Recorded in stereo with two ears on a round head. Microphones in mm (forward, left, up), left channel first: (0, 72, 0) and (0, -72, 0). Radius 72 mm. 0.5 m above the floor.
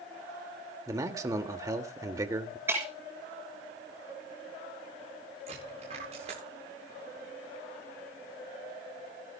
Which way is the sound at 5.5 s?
45° right (ahead or behind).